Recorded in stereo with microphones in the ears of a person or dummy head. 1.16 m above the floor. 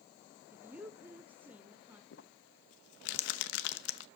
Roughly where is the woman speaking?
Centre.